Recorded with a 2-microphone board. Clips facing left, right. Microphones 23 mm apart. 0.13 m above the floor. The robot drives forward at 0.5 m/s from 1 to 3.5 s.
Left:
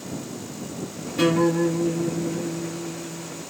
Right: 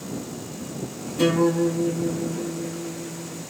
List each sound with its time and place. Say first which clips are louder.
1.2 s a guitar: even; 80° left, 8.5 m; by 3.4 s 85° left, 8.5 m